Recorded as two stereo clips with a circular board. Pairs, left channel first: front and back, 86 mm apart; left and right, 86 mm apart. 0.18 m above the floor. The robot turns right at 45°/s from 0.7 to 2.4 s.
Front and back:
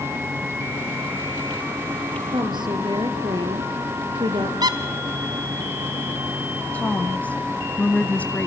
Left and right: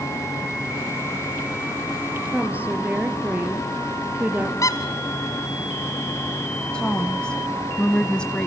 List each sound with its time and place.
2.3 s a woman speaking: 165° right, 3.5 m; by 4.5 s 160° right, 3.5 m
4.6 s a squeak: 140° left, 1.7 m
6.7 s a woman speaking: 30° left, 1.1 m